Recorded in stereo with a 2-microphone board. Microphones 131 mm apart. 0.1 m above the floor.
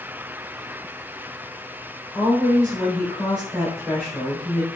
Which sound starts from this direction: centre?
A woman speaking, at 2.1 s.